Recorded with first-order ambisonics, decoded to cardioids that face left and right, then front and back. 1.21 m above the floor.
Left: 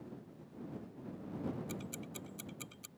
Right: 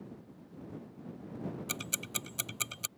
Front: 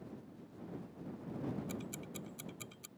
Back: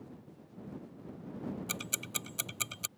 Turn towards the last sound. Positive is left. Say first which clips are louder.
# right 9 dB, back 9 dB
turn(degrees=-135)